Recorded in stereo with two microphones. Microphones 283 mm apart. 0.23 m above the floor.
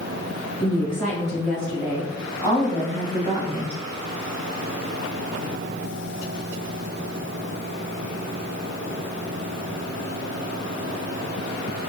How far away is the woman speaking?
About 1.9 m.